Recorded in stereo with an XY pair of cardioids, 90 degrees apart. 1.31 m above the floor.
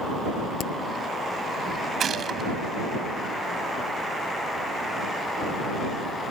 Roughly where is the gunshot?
Ahead right.